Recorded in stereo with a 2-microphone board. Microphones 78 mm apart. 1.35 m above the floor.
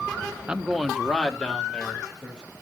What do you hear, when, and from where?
0.5 s a man speaking: 15° right (ahead or behind), 0.5 m; by 2.5 s 10° left (ahead or behind), 3.5 m